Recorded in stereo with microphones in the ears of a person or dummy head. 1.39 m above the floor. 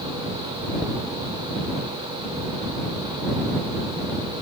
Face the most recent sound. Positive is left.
No sound to turn to.